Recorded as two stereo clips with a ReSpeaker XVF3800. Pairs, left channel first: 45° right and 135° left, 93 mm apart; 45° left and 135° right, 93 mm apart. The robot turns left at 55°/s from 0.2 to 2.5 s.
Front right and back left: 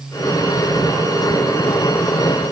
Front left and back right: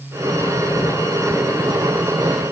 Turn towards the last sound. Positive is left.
No sound to turn to.